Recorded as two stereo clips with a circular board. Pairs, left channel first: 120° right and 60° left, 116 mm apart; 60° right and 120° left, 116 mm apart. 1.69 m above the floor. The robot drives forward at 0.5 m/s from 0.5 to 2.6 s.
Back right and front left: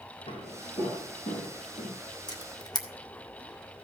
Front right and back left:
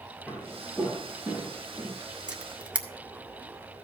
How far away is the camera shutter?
About 1.8 m.